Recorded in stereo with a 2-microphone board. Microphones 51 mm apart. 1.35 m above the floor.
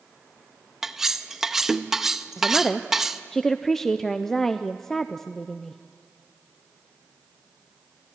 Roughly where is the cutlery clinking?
Centre.